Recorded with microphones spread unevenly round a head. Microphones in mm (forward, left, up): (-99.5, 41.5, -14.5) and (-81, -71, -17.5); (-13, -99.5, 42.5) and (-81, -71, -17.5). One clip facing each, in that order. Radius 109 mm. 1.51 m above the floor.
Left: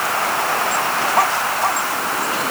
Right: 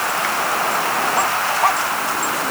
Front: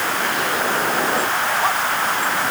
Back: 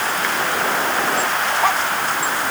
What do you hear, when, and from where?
Only background noise.